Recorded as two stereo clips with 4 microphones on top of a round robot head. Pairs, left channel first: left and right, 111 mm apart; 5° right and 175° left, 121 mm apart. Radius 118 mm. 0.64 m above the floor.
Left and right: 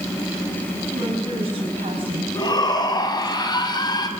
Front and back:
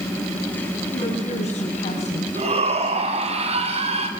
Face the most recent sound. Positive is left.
turn(degrees=140)